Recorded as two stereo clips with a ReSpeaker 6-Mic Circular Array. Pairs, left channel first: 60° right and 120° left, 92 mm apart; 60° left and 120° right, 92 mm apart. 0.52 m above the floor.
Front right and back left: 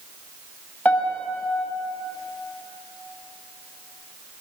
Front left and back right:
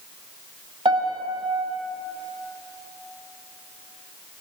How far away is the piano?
About 1.3 m.